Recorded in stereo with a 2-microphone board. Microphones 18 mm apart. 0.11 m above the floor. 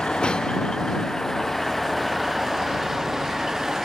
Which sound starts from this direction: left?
A vehicle, at 0.0 s.